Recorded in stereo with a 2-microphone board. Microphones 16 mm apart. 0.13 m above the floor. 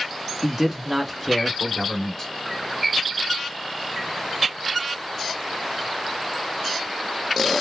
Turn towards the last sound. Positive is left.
turn(degrees=20)  # may be behind; listen again after turning